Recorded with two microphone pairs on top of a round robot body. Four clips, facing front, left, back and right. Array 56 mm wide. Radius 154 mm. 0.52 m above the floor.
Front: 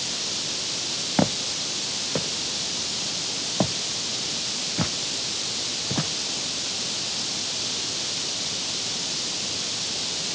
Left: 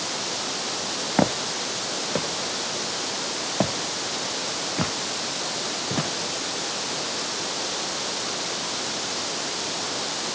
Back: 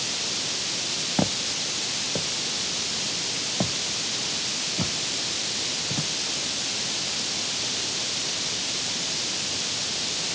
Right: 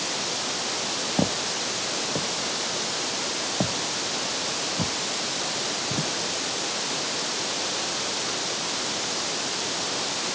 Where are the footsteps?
70° left; by 6.1 s 60° left.